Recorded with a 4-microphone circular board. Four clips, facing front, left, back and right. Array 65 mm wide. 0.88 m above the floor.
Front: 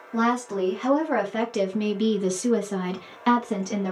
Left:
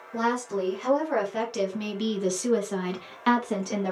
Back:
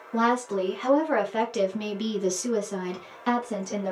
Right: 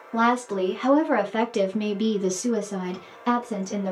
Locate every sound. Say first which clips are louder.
0.1 s a woman speaking: right 5 dB, even; 110° right, 1.2 m; by 3.9 s 60° left, 1.2 m